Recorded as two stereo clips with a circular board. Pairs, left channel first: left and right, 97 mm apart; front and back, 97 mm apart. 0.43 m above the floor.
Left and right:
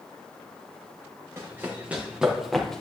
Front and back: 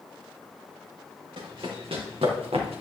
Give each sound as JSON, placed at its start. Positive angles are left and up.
{"t": 1.4, "sound": "running footsteps", "azimuth_deg": -155, "distance_m": 3.5}